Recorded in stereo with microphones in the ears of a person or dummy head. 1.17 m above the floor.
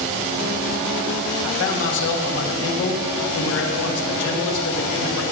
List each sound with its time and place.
1.4 s a man speaking: 65° left (ahead or behind), 2.0 m